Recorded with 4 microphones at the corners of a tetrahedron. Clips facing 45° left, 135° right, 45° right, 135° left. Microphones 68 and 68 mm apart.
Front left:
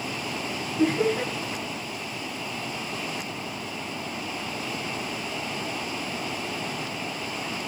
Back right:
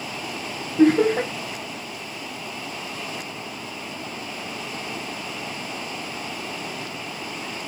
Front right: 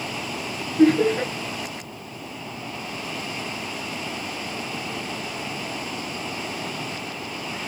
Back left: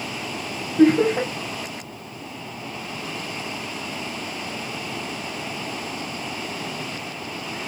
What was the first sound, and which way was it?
Laughter, 175° right.